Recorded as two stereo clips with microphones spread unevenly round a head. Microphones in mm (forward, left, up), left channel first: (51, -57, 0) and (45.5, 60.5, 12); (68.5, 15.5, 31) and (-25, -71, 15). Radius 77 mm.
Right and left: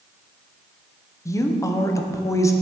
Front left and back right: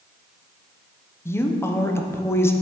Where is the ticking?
I don't hear ticking.